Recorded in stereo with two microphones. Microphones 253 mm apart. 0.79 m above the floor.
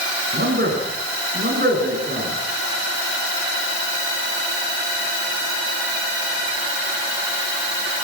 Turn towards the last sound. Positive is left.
turn(degrees=-40)  # may be behind; listen again after turning